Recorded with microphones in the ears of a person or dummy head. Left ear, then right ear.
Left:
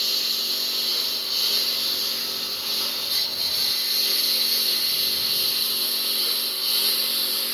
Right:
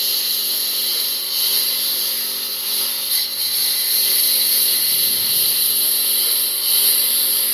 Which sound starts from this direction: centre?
A lawn mower, at 0.0 s.